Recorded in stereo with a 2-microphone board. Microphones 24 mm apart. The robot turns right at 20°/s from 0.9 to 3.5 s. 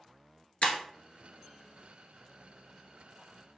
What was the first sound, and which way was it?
Breaking glass, 65° left (ahead or behind).